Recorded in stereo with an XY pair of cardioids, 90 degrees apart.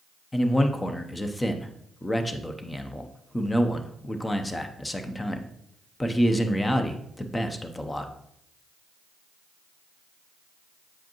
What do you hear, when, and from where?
0.3 s a man speaking: 20° left, 0.8 m